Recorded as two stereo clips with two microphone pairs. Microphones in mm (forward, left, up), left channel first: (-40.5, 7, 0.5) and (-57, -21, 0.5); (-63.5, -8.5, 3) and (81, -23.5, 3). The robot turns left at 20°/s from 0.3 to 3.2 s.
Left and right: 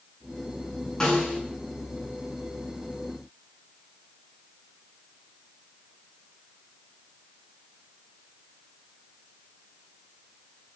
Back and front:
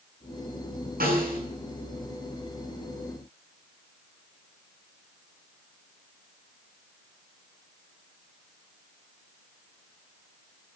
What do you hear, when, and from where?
1.0 s a snare drum: 5° right, 9.5 m; by 1.4 s 15° right, 9.5 m